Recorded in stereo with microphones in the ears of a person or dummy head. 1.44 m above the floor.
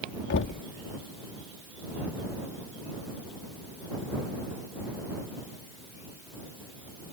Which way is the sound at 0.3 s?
65° left (ahead or behind).